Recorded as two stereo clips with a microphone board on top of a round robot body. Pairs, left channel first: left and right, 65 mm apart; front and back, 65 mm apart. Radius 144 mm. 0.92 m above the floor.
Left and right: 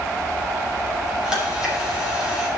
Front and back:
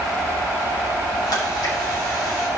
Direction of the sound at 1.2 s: 15° right.